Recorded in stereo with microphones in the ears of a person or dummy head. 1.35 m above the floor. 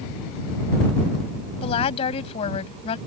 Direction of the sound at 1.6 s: 35° left (ahead or behind).